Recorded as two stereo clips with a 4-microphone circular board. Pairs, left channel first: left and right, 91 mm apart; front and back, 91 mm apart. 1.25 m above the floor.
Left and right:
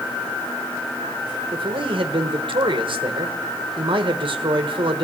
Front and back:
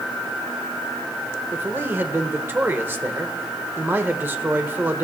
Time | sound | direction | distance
1.5 | a man speaking | 115° right | 1.2 m